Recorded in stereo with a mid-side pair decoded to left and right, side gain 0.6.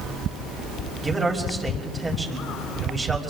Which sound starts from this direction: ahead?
A man speaking, at 1.0 s.